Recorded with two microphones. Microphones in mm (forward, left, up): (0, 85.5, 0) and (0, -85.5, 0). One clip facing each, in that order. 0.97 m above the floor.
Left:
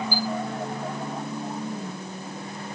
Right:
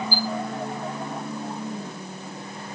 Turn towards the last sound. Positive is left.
turn(degrees=60)  # may be behind; listen again after turning